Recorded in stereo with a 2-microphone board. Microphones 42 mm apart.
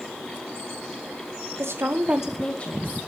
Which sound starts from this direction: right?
A woman speaking, at 1.6 s.